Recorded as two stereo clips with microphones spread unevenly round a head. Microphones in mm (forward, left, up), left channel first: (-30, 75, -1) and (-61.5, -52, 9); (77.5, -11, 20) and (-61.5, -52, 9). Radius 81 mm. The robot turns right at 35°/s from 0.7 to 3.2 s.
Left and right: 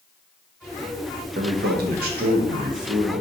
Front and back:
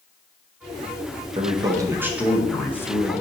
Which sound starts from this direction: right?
A man speaking, at 1.4 s.